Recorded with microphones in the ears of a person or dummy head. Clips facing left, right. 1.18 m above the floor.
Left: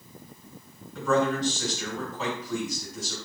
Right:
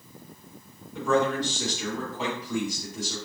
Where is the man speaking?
10° right (ahead or behind), 2.0 m.